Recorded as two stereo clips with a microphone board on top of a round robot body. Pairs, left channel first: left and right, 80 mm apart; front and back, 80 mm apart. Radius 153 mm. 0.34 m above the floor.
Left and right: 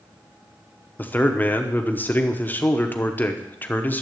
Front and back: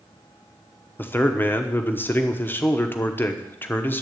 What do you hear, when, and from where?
1.0 s a man speaking: 45° left, 1.2 m